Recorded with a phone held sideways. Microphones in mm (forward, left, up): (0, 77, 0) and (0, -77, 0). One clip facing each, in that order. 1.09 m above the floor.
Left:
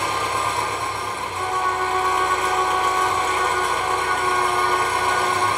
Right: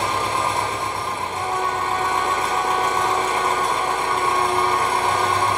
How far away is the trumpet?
About 2.5 m.